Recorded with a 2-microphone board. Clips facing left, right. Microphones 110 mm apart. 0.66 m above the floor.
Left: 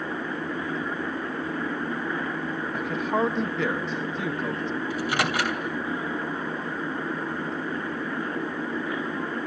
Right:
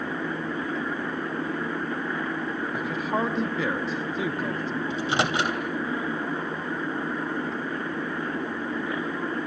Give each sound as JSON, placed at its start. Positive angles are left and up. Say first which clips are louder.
{"t": 2.7, "sound": "a man speaking", "louder": "left 3 dB", "side_deg": 0, "distance_m": 1.3}
{"t": 4.9, "sound": "a microwave", "louder": "right 2 dB", "side_deg": -25, "distance_m": 3.0}